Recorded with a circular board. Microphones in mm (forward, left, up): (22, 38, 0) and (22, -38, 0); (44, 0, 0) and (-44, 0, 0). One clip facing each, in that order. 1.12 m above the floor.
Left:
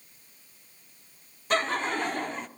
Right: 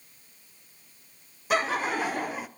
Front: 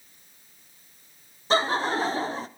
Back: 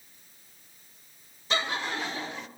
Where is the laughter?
10° right, 0.8 m.